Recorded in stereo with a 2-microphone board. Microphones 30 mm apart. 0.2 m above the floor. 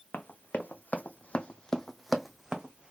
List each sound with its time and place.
0.1 s running footsteps: 80° left, 0.9 m; by 2.9 s 25° right (ahead or behind), 0.9 m